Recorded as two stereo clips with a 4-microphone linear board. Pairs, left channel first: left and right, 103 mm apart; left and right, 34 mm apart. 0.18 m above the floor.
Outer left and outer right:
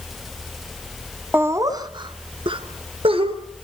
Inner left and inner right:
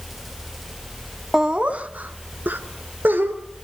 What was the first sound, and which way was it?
Laughter, 20° right (ahead or behind).